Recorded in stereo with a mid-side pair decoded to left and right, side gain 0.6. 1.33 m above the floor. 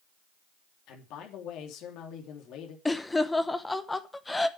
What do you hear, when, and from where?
0.9 s a man speaking: 65° left, 3 m
2.9 s laughter: 15° left, 0.8 m